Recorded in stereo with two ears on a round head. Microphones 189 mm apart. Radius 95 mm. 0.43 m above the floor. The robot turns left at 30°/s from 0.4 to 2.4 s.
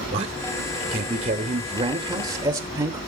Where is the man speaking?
30° right (ahead or behind), 0.9 m; by 3.0 s 20° right (ahead or behind), 0.9 m.